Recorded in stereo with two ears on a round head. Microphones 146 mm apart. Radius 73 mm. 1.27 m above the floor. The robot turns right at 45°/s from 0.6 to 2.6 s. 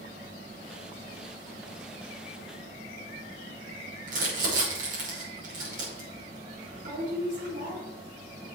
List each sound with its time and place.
4.1 s crumpling: 50° right (ahead or behind), 5.5 m